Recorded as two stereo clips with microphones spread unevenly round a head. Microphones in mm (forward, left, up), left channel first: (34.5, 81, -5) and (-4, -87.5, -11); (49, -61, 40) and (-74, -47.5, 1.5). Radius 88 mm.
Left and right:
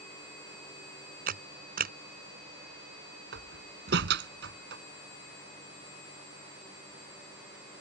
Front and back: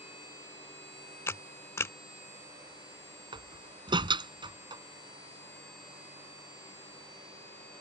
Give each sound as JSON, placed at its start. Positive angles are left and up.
{"t": 1.3, "sound": "a camera shutter", "azimuth_deg": -70}
{"t": 3.3, "sound": "a door slam", "azimuth_deg": -135}